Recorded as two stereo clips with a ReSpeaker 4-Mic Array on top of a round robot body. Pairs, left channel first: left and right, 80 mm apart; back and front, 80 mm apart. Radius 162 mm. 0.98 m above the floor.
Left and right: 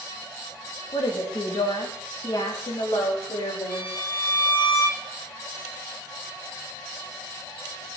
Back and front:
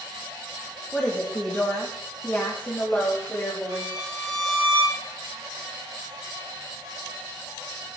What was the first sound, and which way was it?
A woman speaking, 105° left.